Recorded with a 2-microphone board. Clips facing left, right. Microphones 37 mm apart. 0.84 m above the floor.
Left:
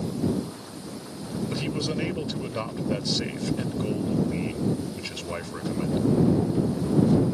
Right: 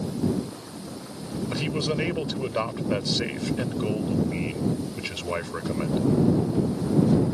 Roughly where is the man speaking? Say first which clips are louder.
Right 3 dB; centre.